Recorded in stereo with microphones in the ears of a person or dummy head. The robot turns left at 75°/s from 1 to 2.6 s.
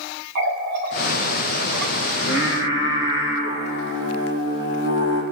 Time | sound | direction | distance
0.3 | a running tap | 50° right (ahead or behind) | 2.5 m
2.1 | singing | 105° left | 1.9 m